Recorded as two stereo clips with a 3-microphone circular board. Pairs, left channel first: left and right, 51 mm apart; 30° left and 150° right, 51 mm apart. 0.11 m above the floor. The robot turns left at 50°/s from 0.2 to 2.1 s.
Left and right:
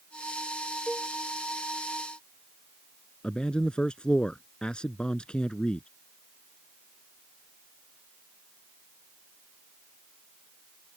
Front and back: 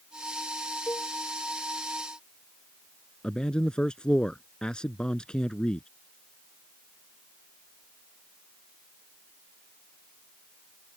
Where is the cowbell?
Straight ahead; by 1.1 s 10° right.